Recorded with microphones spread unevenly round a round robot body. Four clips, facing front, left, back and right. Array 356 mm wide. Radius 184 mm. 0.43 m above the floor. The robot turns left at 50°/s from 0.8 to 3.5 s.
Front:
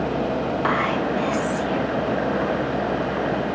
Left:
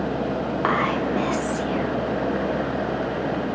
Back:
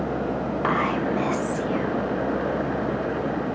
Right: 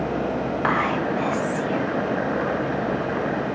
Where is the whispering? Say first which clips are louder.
Left 1 dB, even; 155° left, 0.9 m; by 2.0 s 95° left, 0.9 m.